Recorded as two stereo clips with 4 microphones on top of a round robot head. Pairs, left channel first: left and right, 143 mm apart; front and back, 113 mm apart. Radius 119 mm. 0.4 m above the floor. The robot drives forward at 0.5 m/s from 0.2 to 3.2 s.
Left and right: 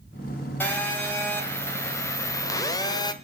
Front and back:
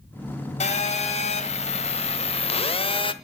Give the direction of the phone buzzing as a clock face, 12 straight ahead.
12 o'clock.